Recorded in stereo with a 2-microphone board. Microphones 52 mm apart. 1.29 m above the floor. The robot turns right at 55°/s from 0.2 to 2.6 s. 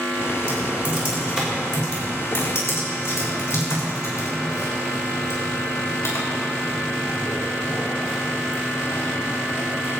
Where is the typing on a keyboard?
60° right (ahead or behind), 5.5 m; by 10.0 s 55° left (ahead or behind), 5.5 m.